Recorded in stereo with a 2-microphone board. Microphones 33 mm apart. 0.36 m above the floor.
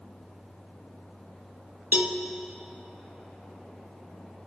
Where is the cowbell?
70° right (ahead or behind), 0.7 m.